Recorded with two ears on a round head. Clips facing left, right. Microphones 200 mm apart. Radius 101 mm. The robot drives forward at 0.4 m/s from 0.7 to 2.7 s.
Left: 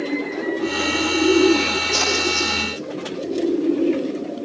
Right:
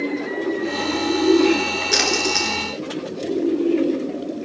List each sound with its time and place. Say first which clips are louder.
1.9 s a splash: right 2 dB; 80° right, 6 m